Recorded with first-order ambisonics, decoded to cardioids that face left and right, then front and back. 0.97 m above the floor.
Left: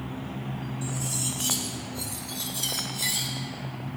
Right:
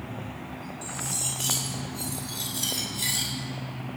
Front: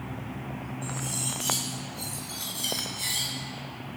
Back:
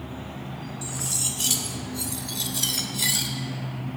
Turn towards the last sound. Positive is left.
turn(degrees=180)